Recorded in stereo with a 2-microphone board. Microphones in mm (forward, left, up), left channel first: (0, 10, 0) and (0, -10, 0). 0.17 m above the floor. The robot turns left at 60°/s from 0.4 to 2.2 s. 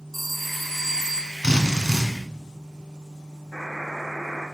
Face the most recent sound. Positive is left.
turn(degrees=-20)  # may be behind; listen again after turning